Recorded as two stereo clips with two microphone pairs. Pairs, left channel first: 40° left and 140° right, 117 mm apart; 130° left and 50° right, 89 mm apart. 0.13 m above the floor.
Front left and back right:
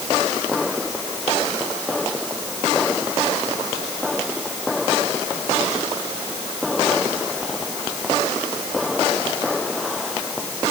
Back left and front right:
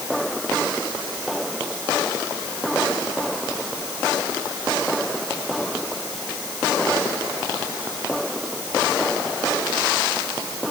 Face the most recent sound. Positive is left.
No sound to turn to.